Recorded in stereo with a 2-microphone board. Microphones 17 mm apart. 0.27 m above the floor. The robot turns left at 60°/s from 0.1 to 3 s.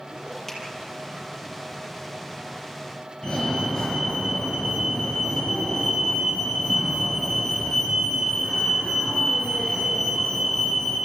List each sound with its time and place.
0.5 s a finger snap: 5° left (ahead or behind), 5.5 m; by 0.6 s 10° left (ahead or behind), 5.5 m
3.2 s a fire alarm: 35° left (ahead or behind), 7 m